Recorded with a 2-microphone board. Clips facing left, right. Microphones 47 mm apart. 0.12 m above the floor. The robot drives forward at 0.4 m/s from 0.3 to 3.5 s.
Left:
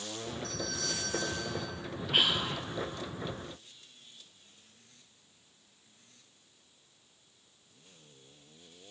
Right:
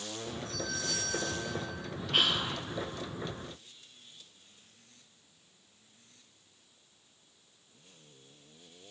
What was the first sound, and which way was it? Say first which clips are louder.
A doorbell: right 1 dB; 75° left (ahead or behind).